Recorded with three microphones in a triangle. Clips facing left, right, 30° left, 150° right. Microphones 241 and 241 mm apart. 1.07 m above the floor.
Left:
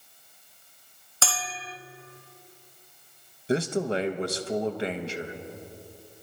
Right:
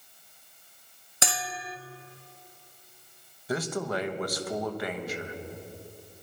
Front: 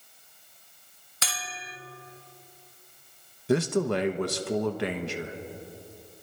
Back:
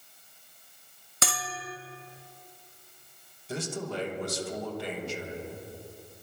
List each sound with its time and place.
1.2 s a bell: 160° right, 0.6 m
3.5 s a man speaking: 30° left, 0.9 m